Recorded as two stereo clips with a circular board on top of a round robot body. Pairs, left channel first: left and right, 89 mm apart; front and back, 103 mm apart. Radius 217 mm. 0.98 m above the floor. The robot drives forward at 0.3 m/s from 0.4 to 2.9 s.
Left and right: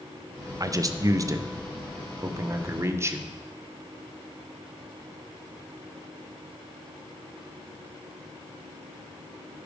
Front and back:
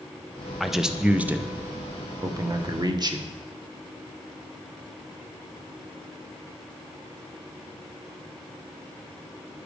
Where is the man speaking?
90° right, 0.9 m; by 3.3 s 145° right, 1.2 m.